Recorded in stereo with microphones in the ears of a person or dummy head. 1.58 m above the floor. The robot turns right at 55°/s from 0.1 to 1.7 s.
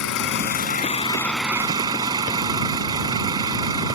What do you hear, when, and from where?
0.0 s an engine running: 110° left; by 4.0 s 165° right